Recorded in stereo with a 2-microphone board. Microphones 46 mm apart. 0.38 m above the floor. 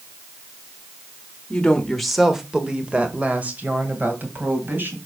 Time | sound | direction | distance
1.5 | a woman speaking | 20° left (ahead or behind) | 1.2 m